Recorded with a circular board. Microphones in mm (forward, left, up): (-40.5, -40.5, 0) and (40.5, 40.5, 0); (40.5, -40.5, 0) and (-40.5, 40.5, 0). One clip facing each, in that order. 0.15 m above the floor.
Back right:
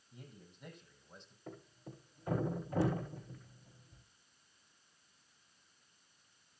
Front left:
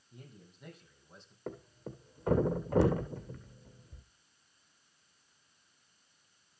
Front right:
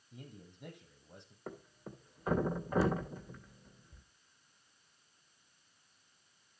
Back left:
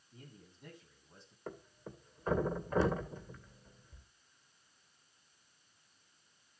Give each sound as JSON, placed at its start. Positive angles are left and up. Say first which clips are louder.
{"t": 0.1, "sound": "a man speaking", "louder": "front left 1 dB, front right 4 dB", "azimuth_deg": -45, "distance_m": 5.0}
{"t": 1.5, "sound": "a thud", "louder": "front left 7 dB, even", "azimuth_deg": 40, "distance_m": 2.5}